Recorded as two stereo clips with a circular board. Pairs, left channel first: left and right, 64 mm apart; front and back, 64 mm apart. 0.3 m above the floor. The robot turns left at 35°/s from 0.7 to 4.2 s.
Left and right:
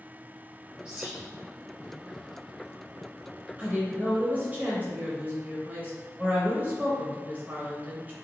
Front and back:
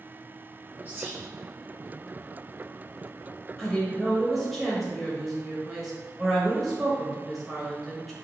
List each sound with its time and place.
0.8 s whispering: 155° right, 1.2 m; by 1.3 s 170° right, 1.2 m
3.6 s a woman speaking: 65° right, 1.2 m; by 8.2 s 90° right, 1.2 m